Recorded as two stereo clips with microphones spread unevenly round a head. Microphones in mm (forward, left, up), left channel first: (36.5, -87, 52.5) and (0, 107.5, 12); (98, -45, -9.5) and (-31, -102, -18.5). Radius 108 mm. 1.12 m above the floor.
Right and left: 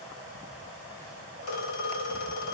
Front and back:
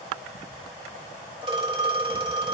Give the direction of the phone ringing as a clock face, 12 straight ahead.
3 o'clock.